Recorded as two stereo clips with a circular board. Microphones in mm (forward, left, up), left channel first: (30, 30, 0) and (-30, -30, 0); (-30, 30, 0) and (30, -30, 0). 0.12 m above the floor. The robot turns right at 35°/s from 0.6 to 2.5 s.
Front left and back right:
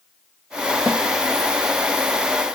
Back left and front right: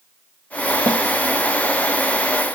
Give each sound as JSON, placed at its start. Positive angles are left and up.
{"t": 0.9, "sound": "a snare drum", "azimuth_deg": -80, "distance_m": 2.5}